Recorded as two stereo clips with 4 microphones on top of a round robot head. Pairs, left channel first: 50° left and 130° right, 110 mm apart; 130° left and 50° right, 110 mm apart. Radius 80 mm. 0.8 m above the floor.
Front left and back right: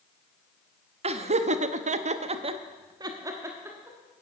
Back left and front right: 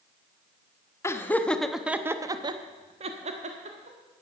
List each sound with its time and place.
1.0 s laughter: 160° right, 1.1 m; by 4.0 s 60° right, 1.6 m